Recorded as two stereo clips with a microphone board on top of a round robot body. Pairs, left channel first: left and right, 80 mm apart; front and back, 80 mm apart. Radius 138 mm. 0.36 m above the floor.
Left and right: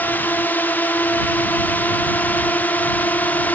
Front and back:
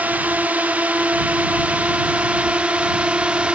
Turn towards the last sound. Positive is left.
turn(degrees=125)